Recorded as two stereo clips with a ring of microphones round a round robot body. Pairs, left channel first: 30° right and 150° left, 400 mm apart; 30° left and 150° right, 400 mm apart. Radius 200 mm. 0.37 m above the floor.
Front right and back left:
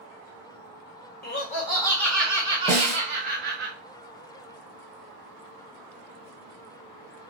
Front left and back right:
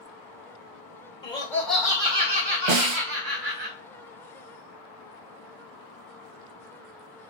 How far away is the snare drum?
About 0.9 m.